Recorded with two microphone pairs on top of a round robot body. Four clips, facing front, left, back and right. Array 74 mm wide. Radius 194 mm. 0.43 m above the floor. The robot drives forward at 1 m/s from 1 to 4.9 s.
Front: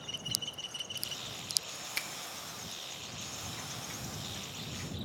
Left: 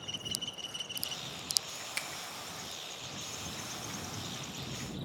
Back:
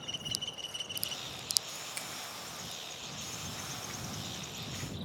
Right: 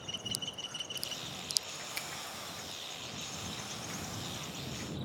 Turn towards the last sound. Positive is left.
turn(degrees=175)